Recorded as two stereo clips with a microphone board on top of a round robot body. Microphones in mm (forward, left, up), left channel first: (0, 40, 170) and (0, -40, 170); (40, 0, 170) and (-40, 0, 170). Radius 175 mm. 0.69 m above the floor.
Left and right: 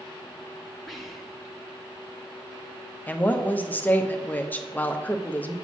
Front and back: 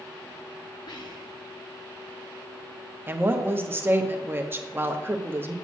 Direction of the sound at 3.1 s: 140° left.